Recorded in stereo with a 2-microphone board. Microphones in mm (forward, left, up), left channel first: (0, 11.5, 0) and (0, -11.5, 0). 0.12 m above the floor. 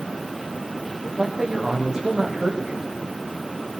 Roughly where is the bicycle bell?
No bicycle bell in this recording.